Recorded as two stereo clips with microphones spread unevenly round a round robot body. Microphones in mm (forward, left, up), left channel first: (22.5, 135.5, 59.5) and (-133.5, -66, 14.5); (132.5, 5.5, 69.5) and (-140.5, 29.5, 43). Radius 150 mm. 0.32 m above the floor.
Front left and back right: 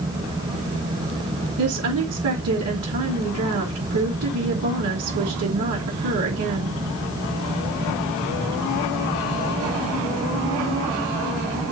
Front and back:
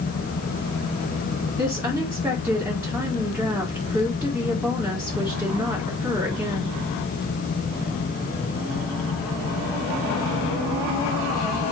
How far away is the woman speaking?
About 4 m.